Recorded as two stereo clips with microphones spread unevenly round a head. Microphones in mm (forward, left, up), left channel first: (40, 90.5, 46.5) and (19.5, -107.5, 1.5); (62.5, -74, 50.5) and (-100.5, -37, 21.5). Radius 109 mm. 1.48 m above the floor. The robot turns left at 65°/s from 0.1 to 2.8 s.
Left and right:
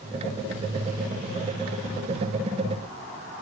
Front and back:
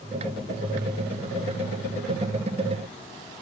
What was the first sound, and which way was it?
Only background noise.